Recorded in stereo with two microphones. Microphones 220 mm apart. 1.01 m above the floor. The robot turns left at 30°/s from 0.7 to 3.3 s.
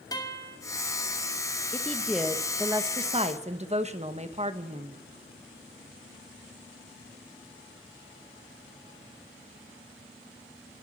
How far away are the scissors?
No scissors in this recording.